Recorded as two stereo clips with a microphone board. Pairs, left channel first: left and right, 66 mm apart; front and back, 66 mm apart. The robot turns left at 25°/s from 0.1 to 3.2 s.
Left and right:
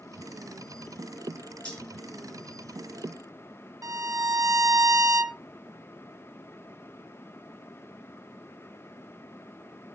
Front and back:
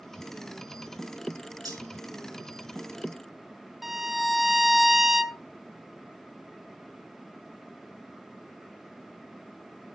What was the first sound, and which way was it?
Cutlery clinking, 165° left.